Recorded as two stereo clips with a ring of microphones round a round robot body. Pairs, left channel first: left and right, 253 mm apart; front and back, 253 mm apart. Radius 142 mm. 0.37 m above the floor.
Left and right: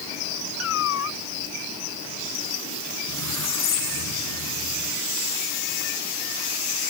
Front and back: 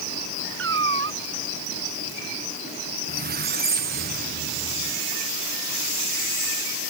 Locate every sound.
0.6 s a cat meowing: 140° left
3.1 s a squeak: 125° left